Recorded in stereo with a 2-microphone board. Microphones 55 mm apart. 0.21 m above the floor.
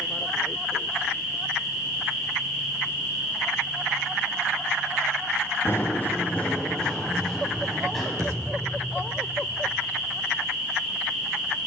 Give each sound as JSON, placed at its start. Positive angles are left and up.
{"t": 5.7, "sound": "running footsteps", "side_deg": 35, "distance_m": 2.0}
{"t": 8.2, "sound": "a thud", "side_deg": -70, "distance_m": 3.0}